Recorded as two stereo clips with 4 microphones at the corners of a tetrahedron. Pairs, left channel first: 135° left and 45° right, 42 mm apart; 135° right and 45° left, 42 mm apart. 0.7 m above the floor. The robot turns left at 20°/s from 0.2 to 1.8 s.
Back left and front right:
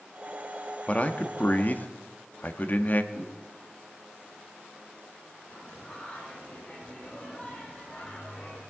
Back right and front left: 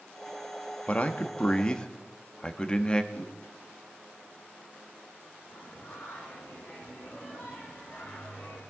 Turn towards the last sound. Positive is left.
turn(degrees=-160)